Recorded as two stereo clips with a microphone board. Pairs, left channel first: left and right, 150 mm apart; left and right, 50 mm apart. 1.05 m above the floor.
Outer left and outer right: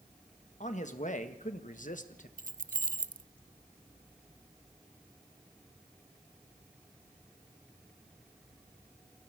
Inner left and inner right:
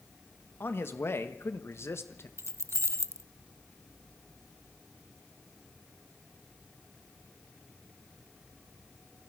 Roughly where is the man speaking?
Left.